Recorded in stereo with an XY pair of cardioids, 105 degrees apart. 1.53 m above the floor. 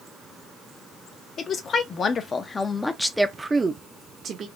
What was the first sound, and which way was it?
A woman speaking, 55° left.